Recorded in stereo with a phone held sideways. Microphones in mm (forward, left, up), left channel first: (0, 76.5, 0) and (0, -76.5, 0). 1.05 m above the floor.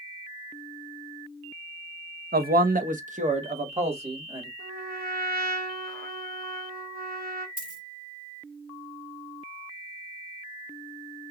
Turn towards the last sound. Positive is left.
turn(degrees=-65)  # may be behind; listen again after turning